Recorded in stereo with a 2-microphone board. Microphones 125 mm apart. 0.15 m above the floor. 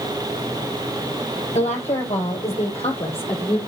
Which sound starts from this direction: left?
A woman speaking, at 1.5 s.